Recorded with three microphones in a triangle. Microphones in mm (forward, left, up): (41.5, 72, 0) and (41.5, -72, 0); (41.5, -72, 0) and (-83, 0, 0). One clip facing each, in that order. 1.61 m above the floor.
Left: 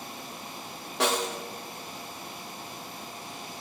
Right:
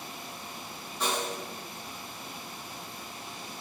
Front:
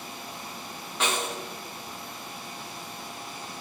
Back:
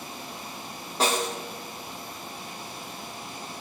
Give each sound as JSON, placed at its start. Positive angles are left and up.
{"t": 1.0, "sound": "a snare drum", "azimuth_deg": 100, "distance_m": 0.6}